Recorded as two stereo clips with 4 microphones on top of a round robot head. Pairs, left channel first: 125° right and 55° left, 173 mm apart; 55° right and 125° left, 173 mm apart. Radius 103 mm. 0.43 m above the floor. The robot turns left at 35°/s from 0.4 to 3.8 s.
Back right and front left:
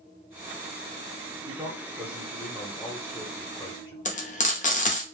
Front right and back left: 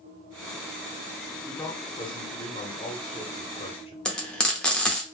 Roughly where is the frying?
Behind right.